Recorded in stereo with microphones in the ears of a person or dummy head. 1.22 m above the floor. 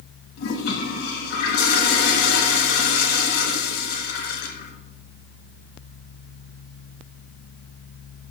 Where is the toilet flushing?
55° left (ahead or behind), 1.3 m.